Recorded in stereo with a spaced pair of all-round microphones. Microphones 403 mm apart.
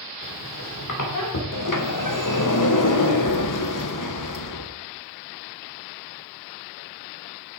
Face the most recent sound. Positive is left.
turn(degrees=50)  # may be behind; listen again after turning